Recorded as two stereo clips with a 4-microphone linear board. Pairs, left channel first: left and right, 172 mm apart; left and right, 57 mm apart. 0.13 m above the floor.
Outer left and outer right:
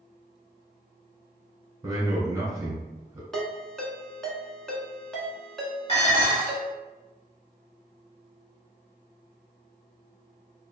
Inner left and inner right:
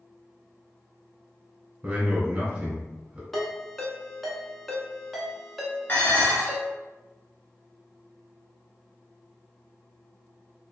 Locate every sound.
1.8 s a man speaking: 20° right (ahead or behind), 1.2 m
3.3 s a ringtone: 5° left (ahead or behind), 0.7 m
5.9 s dishes clattering: 35° left (ahead or behind), 1.2 m